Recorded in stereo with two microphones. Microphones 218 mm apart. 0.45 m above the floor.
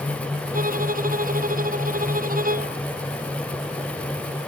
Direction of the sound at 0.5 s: 40° right (ahead or behind).